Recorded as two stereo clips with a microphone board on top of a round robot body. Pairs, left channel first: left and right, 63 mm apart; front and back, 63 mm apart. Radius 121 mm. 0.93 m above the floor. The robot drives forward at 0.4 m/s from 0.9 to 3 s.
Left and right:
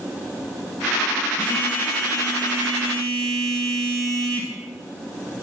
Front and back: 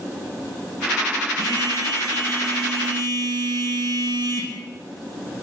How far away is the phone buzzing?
About 4 m.